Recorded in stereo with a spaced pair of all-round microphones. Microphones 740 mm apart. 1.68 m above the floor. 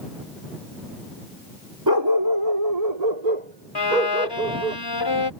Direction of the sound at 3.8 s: 30° left (ahead or behind).